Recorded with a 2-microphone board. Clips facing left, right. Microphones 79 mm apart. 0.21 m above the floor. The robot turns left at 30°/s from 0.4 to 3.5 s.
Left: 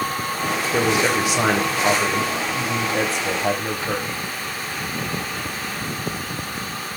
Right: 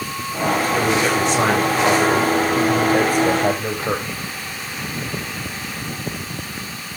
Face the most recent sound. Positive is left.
turn(degrees=-60)